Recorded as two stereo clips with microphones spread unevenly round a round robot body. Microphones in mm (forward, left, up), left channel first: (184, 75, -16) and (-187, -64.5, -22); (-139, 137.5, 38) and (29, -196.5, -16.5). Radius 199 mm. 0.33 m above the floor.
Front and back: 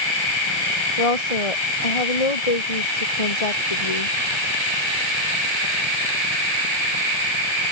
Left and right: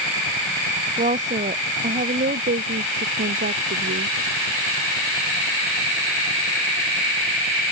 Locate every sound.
1.0 s a woman speaking: 10° left; by 4.2 s 5° left